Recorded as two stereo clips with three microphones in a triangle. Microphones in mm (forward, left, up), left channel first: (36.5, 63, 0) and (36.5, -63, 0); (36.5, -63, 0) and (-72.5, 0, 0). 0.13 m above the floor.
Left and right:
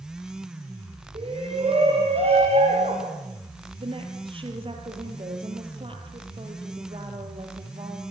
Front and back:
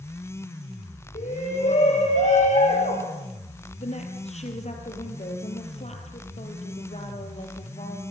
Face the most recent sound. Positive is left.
turn(degrees=-50)